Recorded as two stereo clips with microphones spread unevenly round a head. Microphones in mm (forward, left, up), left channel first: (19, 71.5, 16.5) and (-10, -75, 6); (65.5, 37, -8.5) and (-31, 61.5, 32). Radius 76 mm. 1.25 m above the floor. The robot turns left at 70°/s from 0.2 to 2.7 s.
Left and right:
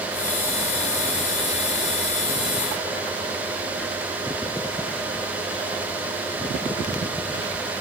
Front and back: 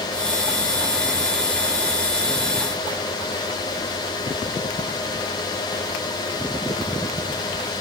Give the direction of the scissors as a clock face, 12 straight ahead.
No scissors in this recording.